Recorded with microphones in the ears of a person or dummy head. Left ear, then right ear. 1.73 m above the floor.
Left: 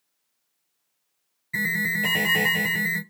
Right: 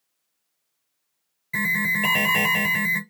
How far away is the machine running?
No machine running in this recording.